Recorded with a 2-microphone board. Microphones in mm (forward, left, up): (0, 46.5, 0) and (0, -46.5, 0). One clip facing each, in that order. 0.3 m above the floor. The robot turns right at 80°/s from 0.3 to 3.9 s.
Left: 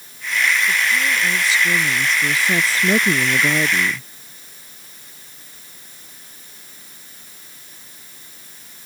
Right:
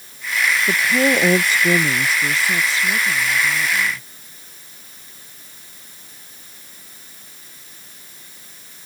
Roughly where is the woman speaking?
Behind right.